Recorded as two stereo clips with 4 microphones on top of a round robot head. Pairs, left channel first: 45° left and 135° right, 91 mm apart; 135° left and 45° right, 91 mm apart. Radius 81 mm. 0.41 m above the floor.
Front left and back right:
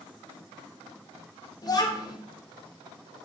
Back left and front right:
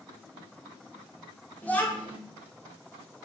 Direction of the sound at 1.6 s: 65° left.